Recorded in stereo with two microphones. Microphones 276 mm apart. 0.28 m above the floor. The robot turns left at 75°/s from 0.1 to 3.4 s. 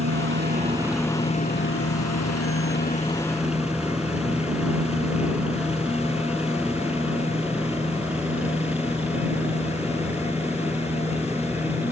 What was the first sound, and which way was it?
A helicopter, 55° right (ahead or behind).